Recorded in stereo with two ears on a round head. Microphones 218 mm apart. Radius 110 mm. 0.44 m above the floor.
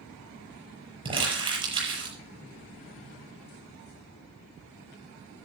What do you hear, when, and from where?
1.1 s crumpling: 20° right (ahead or behind), 6.5 m